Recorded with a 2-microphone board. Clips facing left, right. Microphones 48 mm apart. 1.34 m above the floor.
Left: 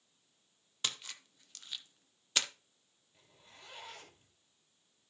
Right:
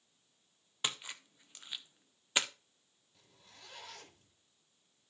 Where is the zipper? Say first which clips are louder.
Left 1 dB; 30° left (ahead or behind), 3 m.